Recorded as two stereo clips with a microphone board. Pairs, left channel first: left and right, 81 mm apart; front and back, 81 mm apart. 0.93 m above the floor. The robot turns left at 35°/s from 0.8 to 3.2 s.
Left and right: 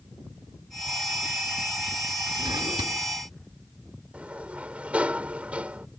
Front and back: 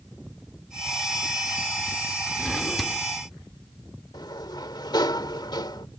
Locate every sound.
2.4 s a drawer: 75° right; by 3.0 s 95° right
4.1 s a sliding door: 15° right